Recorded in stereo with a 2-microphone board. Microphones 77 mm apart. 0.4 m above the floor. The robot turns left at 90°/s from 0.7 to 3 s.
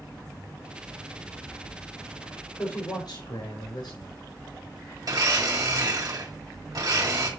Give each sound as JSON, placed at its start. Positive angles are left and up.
{"t": 2.6, "sound": "a man speaking", "azimuth_deg": 150, "distance_m": 5.0}
{"t": 5.0, "sound": "a blender", "side_deg": -55, "distance_m": 2.0}